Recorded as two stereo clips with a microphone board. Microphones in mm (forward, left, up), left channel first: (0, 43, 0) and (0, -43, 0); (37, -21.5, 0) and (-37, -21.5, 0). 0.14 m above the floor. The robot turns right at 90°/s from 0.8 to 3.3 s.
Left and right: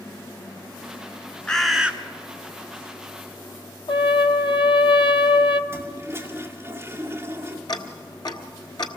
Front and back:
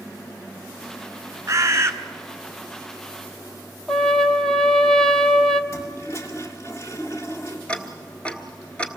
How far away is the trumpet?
About 0.7 m.